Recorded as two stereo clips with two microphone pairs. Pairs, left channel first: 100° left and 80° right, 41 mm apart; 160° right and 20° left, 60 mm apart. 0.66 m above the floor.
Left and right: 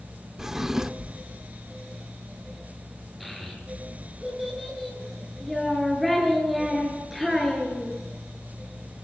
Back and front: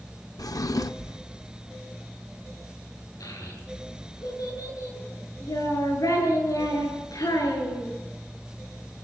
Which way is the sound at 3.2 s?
170° right.